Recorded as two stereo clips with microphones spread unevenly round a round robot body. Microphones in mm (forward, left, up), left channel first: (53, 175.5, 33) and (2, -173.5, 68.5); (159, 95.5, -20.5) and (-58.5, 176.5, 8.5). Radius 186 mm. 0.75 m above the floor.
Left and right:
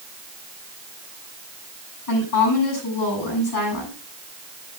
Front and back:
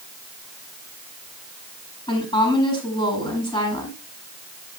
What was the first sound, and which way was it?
A woman speaking, 50° left.